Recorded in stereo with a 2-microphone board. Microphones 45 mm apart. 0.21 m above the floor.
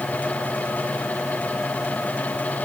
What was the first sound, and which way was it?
Only background noise.